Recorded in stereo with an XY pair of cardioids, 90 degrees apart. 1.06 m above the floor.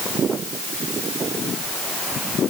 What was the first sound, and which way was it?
Only background noise.